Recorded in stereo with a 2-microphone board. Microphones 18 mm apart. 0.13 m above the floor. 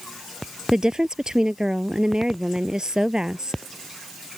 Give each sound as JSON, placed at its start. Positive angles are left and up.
{"t": 0.7, "sound": "a woman speaking", "side_deg": -45}